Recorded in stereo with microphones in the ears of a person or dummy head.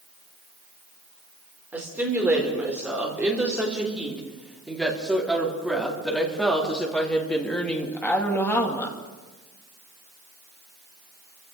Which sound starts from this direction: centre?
A woman speaking, at 1.7 s.